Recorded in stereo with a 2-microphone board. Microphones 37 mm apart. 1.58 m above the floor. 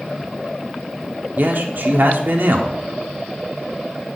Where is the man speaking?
60° right (ahead or behind), 0.7 m.